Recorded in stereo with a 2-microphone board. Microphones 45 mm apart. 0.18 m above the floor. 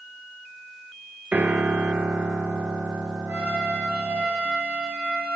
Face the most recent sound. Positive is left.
turn(degrees=-25)  # may be behind; listen again after turning